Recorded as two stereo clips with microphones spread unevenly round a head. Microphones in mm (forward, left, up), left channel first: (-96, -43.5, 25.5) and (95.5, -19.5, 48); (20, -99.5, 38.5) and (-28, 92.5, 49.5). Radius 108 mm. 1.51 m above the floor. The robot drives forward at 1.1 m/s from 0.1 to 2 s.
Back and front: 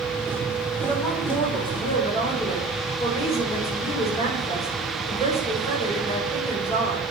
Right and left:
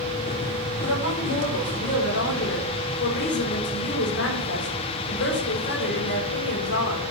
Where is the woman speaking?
100° right, 5 m; by 7.0 s 115° right, 5.5 m.